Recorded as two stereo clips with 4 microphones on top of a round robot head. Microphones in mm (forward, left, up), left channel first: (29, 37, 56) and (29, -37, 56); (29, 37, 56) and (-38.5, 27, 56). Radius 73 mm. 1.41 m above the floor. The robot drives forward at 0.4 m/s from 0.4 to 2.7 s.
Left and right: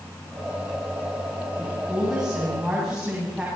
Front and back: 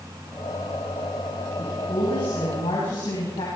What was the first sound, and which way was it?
A woman speaking, 10° right.